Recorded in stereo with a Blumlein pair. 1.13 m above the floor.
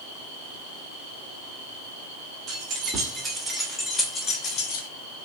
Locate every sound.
2.5 s keys jangling: 30° right, 1.3 m; by 4.9 s 45° left, 0.9 m